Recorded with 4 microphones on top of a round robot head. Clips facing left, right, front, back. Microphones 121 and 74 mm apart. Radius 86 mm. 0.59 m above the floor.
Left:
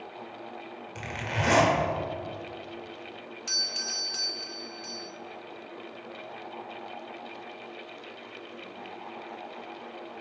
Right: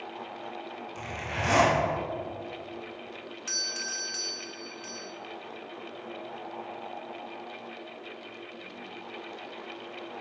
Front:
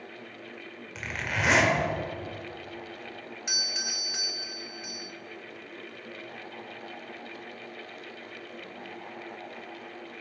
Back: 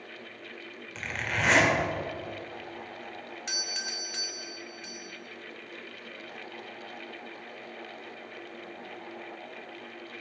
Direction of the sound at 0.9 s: 80° left.